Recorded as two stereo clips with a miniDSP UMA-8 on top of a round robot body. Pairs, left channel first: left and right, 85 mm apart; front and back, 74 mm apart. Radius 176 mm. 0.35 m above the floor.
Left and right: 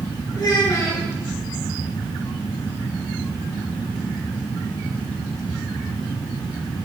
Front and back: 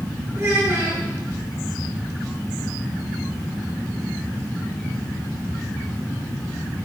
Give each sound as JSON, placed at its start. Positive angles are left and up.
{"t": 0.3, "sound": "a child speaking", "azimuth_deg": 125, "distance_m": 6.5}